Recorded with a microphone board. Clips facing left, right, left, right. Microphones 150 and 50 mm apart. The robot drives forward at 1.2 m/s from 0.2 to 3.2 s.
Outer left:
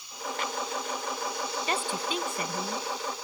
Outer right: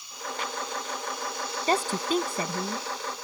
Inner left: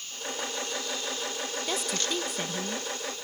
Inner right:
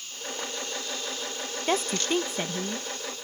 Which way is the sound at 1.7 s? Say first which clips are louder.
Outer right 8 dB, inner right 7 dB; 35° right (ahead or behind).